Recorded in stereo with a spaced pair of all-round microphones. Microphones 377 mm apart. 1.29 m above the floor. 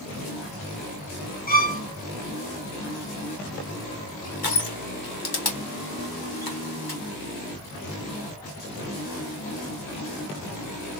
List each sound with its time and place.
1.5 s a violin: 25° left (ahead or behind), 0.7 m
4.4 s crushing: 75° left (ahead or behind), 1.1 m